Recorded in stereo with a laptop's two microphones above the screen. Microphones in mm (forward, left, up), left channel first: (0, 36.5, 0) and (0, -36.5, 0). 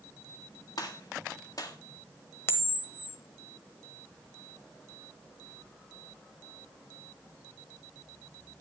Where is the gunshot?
55° left (ahead or behind), 1.7 m.